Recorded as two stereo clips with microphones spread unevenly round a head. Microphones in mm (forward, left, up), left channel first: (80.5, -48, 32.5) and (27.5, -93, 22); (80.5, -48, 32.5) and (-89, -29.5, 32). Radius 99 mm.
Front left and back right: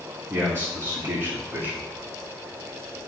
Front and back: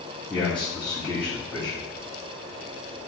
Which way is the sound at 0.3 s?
90° right.